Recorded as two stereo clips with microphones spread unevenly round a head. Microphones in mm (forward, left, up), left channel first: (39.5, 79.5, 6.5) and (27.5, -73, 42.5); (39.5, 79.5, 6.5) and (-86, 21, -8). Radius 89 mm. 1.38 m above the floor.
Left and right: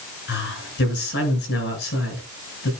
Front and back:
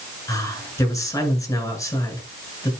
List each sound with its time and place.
0.3 s a man speaking: 95° left, 7.5 m